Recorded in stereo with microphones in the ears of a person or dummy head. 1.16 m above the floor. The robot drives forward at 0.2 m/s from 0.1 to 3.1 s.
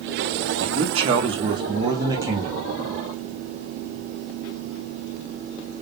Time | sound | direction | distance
0.6 | a man speaking | 20° right (ahead or behind) | 0.7 m